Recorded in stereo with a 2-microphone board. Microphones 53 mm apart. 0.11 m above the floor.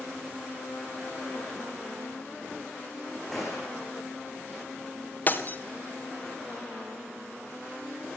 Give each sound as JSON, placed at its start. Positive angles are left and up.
{"t": 3.3, "sound": "a gunshot", "side_deg": 5, "distance_m": 9.5}
{"t": 5.3, "sound": "breaking glass", "side_deg": 35, "distance_m": 3.0}